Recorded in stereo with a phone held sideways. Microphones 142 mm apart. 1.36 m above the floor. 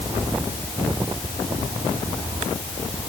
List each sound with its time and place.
Only background noise.